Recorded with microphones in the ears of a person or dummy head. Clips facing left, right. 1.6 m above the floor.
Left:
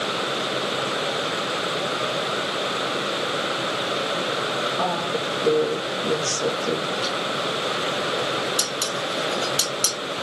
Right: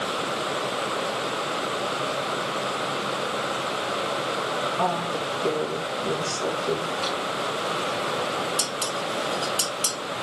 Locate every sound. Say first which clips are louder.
4.8 s a woman speaking: left 1 dB; 40° left (ahead or behind), 3 m
7.0 s a drawer: left 1 dB; 20° left (ahead or behind), 4 m
8.6 s dishes clattering: left 2 dB; 15° left (ahead or behind), 1.5 m